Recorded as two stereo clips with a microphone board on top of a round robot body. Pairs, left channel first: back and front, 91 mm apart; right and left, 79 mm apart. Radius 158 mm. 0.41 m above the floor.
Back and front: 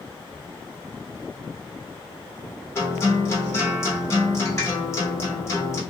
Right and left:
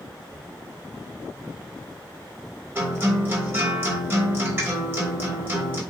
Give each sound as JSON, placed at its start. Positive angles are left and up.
{"t": 2.8, "sound": "a guitar", "azimuth_deg": 140, "distance_m": 1.8}